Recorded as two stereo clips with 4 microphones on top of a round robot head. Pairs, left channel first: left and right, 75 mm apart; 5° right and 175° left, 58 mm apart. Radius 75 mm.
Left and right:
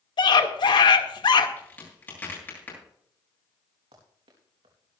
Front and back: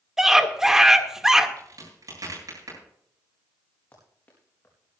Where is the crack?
155° left, 8.5 m.